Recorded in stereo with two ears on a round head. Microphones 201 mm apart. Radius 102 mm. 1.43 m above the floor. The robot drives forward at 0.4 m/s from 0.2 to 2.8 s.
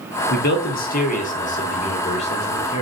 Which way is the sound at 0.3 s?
50° left (ahead or behind).